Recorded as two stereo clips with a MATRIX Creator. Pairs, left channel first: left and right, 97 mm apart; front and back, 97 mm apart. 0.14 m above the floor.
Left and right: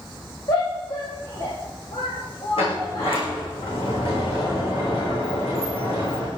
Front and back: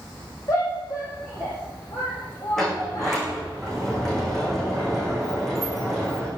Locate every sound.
0.5 s a shout: 55° left, 7.5 m
2.6 s a sliding door: 85° left, 9 m